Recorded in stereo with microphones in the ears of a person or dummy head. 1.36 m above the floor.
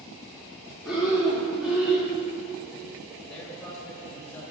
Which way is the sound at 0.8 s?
5° right (ahead or behind).